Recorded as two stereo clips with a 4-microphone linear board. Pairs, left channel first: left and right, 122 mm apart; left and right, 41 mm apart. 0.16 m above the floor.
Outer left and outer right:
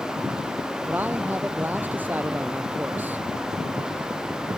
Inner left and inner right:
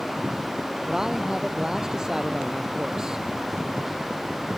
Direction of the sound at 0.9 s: 15° right (ahead or behind).